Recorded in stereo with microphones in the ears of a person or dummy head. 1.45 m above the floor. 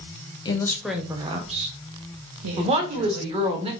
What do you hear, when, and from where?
0.5 s a woman speaking: 25° left (ahead or behind), 0.6 m; by 3.6 s 70° right (ahead or behind), 1.5 m
2.6 s a woman speaking: 25° right (ahead or behind), 1.0 m